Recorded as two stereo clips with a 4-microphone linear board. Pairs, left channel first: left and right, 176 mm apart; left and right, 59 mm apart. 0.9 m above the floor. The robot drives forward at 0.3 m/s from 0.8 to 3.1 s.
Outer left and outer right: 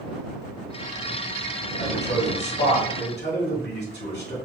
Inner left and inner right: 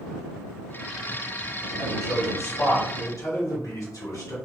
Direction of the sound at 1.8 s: 80° left.